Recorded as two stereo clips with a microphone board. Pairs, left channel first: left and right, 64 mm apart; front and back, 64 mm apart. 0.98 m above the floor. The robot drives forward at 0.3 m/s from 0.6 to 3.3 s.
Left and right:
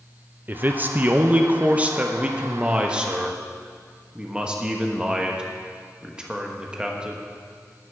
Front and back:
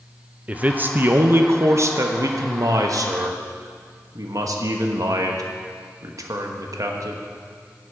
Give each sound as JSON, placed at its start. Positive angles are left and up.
{"t": 0.5, "sound": "a man speaking", "azimuth_deg": -130, "distance_m": 0.6}